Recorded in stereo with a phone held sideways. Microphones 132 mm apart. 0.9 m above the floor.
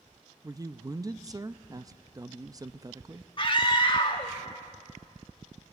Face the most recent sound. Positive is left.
turn(degrees=40)  # may be behind; listen again after turning